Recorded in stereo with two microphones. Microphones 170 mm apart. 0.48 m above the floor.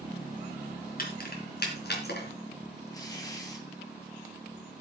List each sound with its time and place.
1.0 s keys jangling: 55° left (ahead or behind), 3.5 m; by 2.3 s 70° left (ahead or behind), 3.5 m
2.9 s tearing paper: 20° left (ahead or behind), 3 m